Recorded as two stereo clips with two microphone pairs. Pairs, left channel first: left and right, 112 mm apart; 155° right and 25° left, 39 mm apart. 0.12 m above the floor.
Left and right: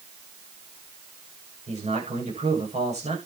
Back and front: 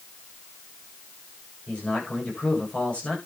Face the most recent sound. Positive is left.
turn(degrees=-90)